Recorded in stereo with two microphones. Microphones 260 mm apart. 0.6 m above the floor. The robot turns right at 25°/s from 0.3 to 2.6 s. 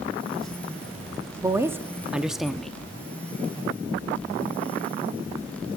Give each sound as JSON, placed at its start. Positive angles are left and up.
{"t": 1.4, "sound": "a woman speaking", "side_deg": -10, "distance_m": 0.6}